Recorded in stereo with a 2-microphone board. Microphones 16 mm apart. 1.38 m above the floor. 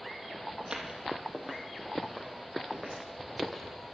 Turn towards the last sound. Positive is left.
turn(degrees=25)  # may be behind; listen again after turning